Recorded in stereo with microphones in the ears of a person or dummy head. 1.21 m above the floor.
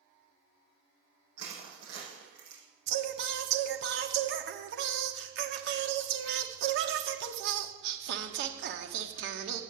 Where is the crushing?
65° right (ahead or behind), 7.5 m.